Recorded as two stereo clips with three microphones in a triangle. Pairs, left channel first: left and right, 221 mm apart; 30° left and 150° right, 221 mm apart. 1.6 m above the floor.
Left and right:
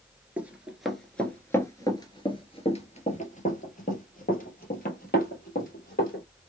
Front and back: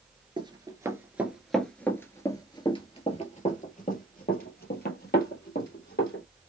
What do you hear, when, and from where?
0.4 s running footsteps: 160° right, 1.6 m; by 6.2 s 55° left, 3 m